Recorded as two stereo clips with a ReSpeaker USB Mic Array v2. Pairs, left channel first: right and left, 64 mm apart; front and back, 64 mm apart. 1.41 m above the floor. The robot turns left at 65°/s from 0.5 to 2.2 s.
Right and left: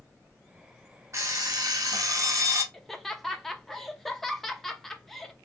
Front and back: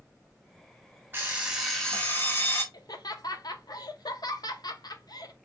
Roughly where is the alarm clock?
Behind left.